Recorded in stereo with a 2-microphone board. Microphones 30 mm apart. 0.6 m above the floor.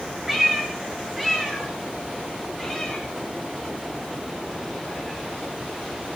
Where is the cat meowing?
5° right (ahead or behind), 4.5 m; by 6.2 s 15° left (ahead or behind), 10.5 m.